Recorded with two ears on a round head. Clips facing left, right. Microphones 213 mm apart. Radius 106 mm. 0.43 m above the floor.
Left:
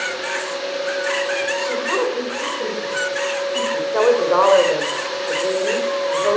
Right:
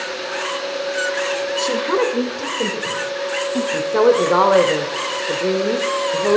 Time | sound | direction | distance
1.6 | a woman speaking | 45° right (ahead or behind) | 1.7 m
3.7 | a woman speaking | 40° right (ahead or behind) | 1.1 m